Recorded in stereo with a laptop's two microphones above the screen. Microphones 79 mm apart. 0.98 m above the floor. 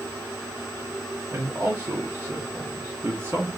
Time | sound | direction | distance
1.3 | a man speaking | 25° right (ahead or behind) | 0.7 m